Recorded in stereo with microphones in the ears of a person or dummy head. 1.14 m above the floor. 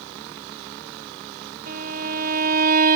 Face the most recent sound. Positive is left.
turn(degrees=-45)  # may be behind; listen again after turning